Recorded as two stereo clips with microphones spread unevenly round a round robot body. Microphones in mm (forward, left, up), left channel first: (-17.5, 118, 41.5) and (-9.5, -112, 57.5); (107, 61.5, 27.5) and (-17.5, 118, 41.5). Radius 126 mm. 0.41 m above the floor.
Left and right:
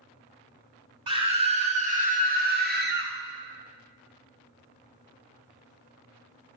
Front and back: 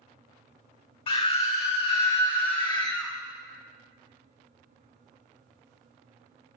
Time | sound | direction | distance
1.1 | a scream | 25° right | 1.9 m